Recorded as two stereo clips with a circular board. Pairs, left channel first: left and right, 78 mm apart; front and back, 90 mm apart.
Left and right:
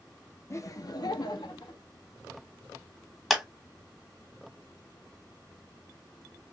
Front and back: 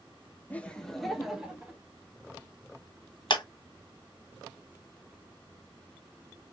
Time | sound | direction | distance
0.5 | laughter | 65° left | 0.6 m
3.3 | a clap | straight ahead | 0.8 m